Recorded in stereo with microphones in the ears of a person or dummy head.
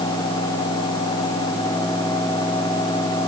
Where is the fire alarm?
No fire alarm in this recording.